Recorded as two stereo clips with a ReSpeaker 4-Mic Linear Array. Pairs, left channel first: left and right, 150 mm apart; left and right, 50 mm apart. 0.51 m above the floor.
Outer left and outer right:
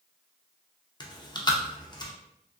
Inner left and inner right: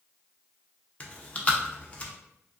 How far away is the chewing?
About 0.5 m.